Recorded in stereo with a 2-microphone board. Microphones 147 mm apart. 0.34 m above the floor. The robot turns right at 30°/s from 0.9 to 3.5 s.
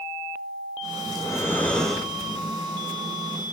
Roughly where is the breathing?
Behind left.